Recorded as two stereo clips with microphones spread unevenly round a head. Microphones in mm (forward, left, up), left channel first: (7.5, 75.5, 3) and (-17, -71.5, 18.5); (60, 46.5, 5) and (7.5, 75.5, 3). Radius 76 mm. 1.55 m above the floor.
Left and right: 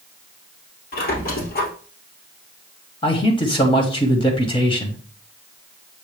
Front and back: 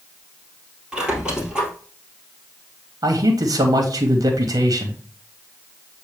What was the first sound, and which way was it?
A squeak, 75° left.